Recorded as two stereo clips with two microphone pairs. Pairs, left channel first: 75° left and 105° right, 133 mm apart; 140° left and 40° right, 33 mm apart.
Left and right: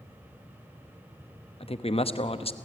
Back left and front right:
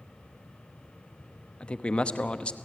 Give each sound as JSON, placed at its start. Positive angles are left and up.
{"t": 1.6, "sound": "a man speaking", "azimuth_deg": 95, "distance_m": 0.9}